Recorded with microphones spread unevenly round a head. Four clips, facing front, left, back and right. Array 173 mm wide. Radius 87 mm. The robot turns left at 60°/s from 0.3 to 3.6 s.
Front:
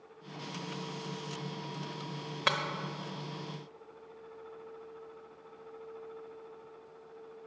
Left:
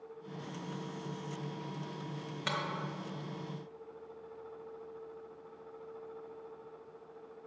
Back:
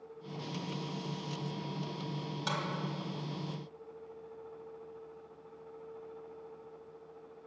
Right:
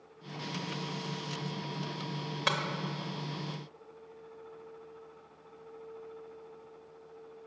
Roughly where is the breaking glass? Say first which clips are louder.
Right 5 dB, front 6 dB; ahead right.